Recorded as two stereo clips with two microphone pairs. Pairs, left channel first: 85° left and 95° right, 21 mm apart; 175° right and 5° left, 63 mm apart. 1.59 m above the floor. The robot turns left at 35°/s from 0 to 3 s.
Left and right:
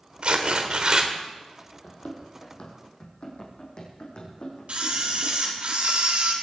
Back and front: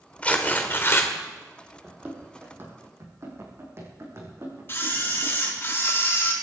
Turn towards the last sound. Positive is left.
turn(degrees=-120)